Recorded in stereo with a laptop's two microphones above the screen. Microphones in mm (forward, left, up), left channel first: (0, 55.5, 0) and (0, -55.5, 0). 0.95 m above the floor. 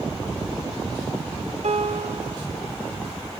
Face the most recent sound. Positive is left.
turn(degrees=-70)  # may be behind; listen again after turning